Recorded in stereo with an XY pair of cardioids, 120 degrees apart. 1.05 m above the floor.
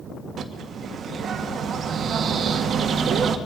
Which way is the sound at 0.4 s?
50° right.